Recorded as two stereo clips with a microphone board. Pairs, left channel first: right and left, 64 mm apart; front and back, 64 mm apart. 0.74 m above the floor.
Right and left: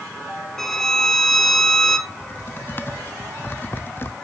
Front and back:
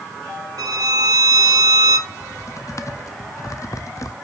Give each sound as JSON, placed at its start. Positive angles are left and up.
{"t": 0.6, "sound": "a violin", "azimuth_deg": -175, "distance_m": 1.1}
{"t": 2.1, "sound": "typing on a keyboard", "azimuth_deg": -35, "distance_m": 0.7}